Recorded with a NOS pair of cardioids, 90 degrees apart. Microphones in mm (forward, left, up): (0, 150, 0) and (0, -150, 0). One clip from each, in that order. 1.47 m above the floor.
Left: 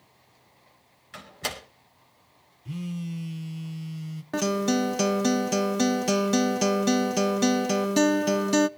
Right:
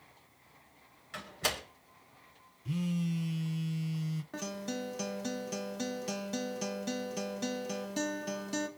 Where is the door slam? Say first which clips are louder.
Left 1 dB; 10° left, 4.5 m.